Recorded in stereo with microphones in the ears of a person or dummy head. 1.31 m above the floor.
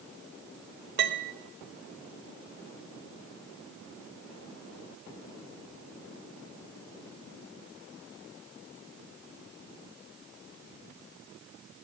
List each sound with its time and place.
1.0 s a piano: 55° right (ahead or behind), 0.7 m